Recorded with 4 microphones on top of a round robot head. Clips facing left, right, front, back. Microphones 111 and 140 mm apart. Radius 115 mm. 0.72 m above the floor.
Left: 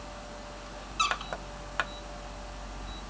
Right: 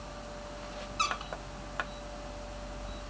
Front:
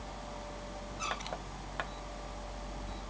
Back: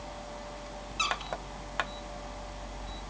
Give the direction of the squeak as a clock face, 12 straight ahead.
6 o'clock.